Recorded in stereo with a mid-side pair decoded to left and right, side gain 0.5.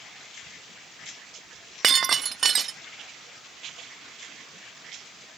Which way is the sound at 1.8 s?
40° right.